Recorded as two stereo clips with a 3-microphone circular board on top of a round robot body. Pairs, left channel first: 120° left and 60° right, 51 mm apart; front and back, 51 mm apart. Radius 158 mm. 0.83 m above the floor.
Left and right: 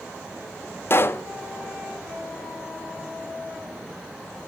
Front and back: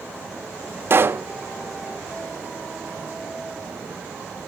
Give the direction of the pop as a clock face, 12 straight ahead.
7 o'clock.